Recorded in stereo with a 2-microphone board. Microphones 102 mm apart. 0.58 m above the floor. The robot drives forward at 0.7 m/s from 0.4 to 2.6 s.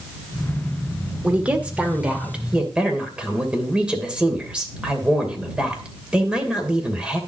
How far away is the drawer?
I don't hear a drawer.